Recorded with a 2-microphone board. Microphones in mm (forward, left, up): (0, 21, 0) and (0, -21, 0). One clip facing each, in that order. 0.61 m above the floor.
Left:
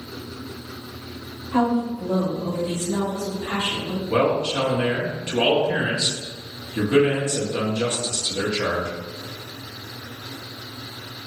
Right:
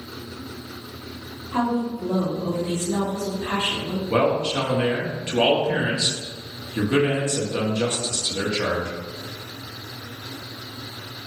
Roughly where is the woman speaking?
Centre.